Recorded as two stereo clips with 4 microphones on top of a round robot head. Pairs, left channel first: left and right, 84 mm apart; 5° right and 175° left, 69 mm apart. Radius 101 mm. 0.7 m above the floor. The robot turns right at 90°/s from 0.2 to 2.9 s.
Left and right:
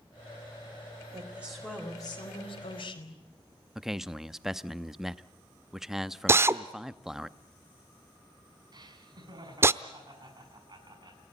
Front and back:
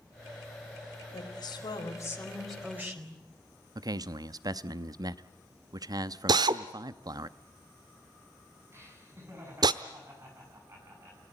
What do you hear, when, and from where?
1.1 s a woman speaking: 40° right, 4.5 m; by 3.2 s 120° left, 4.5 m
3.8 s a man speaking: 175° right, 0.8 m
6.3 s a drill: 150° right, 0.8 m
8.7 s laughter: 125° right, 7 m